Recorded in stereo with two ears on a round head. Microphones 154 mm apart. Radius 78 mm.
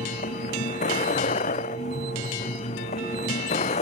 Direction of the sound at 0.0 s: 40° left (ahead or behind).